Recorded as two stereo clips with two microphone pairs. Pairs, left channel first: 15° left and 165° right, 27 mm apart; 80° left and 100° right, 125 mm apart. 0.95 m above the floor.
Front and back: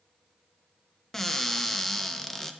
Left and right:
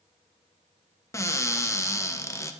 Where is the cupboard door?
70° left, 0.6 m.